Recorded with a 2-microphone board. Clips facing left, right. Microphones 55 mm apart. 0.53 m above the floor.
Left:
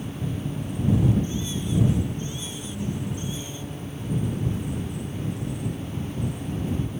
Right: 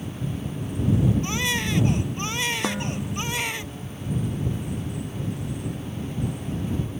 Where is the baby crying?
75° right (ahead or behind).